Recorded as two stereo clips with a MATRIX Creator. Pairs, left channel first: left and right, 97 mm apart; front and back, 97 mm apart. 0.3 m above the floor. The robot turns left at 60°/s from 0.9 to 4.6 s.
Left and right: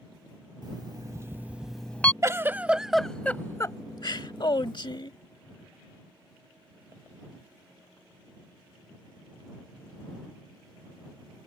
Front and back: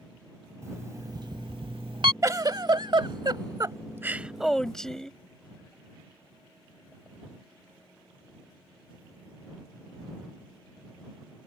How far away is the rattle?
No rattle in this recording.